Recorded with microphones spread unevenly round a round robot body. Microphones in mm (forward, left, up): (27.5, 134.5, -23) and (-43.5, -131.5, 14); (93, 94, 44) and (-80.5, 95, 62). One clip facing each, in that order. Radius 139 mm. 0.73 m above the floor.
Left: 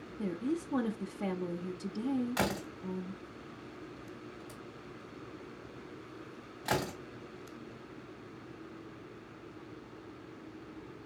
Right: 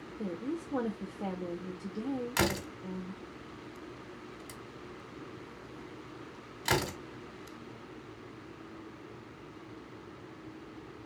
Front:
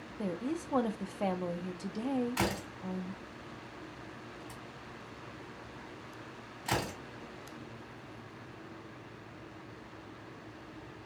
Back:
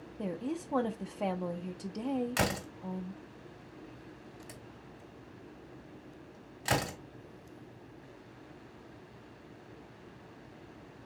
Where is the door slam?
150° right, 1.6 m.